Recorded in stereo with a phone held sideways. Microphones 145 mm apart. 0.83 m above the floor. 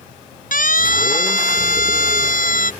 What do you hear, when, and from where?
0.5 s a siren: 65° left (ahead or behind)